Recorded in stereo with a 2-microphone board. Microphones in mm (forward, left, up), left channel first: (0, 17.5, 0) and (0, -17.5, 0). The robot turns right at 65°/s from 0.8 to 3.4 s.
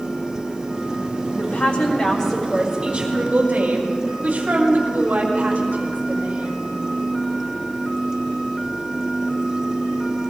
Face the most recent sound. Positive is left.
turn(degrees=-125)